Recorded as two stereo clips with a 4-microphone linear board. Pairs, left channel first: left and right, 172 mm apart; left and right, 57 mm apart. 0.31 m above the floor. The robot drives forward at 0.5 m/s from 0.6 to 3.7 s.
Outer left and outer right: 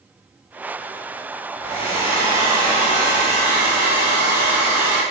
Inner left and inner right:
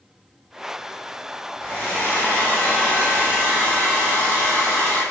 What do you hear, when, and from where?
1.6 s a hair dryer: 30° left (ahead or behind), 3.5 m; by 5.0 s 25° left (ahead or behind), 4 m